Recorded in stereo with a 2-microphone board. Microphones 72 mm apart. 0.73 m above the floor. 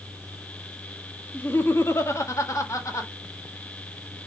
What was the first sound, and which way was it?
Laughter, 25° left (ahead or behind).